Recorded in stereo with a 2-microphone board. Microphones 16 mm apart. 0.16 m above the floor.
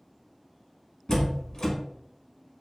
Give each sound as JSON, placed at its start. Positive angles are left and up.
{"t": 1.1, "sound": "a door slam", "side_deg": 35, "distance_m": 0.8}